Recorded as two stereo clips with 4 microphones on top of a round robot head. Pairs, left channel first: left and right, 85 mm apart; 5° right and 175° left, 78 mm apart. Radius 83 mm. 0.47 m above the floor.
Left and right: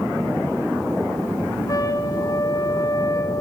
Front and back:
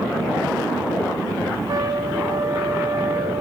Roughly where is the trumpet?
Behind left.